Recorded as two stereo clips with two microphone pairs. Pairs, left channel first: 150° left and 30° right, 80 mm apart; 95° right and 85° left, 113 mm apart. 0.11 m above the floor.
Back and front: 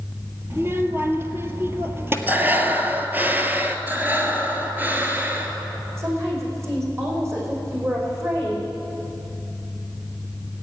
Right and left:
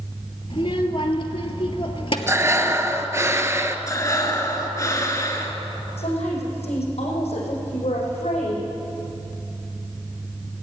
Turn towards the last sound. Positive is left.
turn(degrees=-85)